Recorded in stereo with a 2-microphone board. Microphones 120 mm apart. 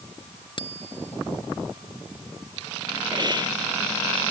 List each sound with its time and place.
0.6 s a bicycle bell: 40° left (ahead or behind)
3.1 s a hiss: 35° right (ahead or behind)